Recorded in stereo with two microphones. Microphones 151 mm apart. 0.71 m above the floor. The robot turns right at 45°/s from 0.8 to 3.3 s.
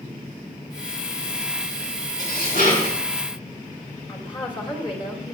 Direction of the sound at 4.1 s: 40° left (ahead or behind).